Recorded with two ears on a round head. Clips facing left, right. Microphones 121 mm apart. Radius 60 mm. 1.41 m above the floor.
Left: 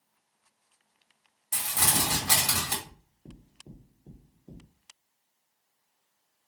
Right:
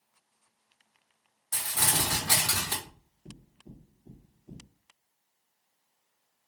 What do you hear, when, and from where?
1.5 s crumpling: 20° left (ahead or behind), 1.9 m
2.8 s knocking: 35° left (ahead or behind), 1.6 m